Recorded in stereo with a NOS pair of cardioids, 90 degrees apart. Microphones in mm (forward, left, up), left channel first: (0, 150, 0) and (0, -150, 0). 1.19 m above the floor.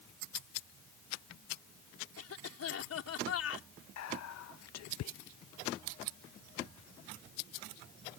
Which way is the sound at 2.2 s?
55° left.